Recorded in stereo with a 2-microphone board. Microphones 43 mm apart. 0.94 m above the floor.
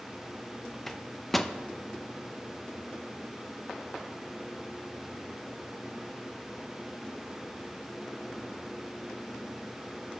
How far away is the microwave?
About 0.6 m.